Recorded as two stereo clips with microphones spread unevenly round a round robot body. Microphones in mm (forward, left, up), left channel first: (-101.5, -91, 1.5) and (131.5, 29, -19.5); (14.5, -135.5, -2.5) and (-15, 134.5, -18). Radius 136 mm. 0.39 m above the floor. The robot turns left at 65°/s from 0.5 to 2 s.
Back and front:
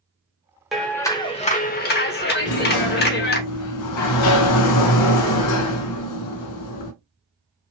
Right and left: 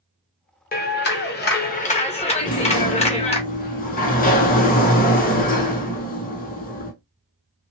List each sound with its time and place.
0.7 s a clap: 55° right, 0.8 m; by 3.4 s 135° right, 0.8 m
2.4 s a sliding door: 145° right, 0.8 m